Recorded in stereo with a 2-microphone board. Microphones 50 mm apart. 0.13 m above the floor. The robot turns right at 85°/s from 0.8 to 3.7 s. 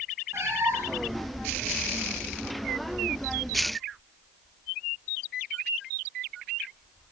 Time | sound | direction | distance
0.3 | a cat meowing | 55° right (ahead or behind) | 5 m